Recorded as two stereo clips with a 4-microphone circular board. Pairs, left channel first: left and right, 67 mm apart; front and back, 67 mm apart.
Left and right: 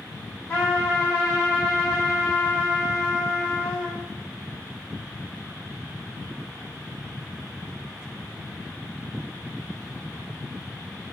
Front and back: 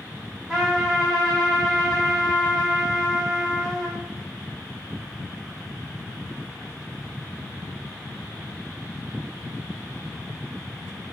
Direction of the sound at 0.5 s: 95° left.